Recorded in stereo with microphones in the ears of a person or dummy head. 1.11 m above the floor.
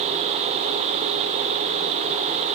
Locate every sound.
Only background noise.